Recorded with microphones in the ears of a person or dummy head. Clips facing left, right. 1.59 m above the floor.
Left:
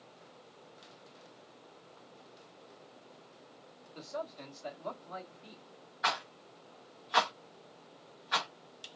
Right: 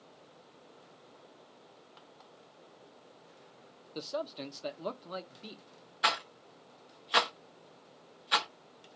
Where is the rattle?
40° right (ahead or behind), 1.3 m.